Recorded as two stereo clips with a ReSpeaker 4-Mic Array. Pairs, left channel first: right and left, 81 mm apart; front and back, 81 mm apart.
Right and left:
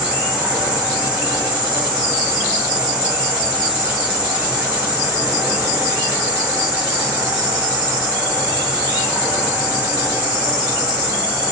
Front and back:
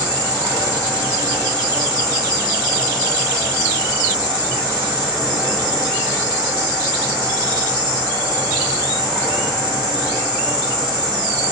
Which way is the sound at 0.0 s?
160° left.